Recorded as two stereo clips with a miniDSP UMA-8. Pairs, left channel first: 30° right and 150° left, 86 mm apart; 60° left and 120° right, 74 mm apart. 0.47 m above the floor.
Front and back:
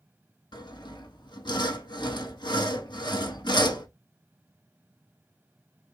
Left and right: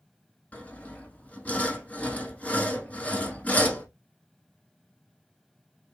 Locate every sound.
0.5 s sawing: 10° right, 1.0 m